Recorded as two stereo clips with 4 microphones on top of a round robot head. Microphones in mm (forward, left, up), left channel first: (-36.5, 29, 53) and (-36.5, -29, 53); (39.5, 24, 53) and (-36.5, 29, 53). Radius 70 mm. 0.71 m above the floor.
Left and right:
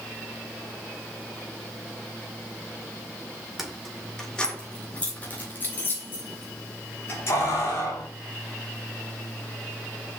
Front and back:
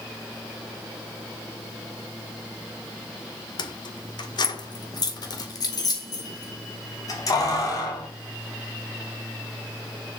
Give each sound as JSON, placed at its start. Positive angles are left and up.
{"t": 3.6, "sound": "keys jangling", "azimuth_deg": -5, "distance_m": 1.3}